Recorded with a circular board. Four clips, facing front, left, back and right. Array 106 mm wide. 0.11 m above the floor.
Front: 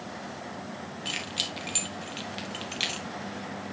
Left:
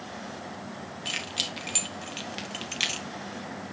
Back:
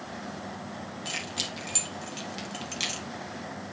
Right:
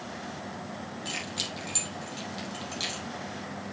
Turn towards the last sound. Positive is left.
turn(degrees=80)